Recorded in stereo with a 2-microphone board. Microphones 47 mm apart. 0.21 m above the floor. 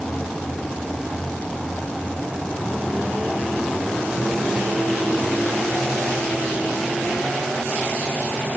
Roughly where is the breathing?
I don't hear breathing.